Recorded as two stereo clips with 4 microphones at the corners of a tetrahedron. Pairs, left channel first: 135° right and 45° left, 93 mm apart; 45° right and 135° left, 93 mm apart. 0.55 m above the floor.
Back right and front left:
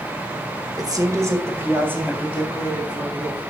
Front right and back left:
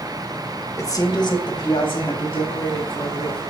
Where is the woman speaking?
5° left, 1.7 m; by 3.4 s 30° right, 5.5 m.